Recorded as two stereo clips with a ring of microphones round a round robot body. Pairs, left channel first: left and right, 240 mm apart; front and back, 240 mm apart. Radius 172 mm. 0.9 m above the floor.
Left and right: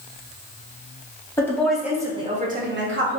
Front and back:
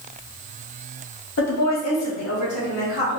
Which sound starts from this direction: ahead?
A woman speaking, at 1.4 s.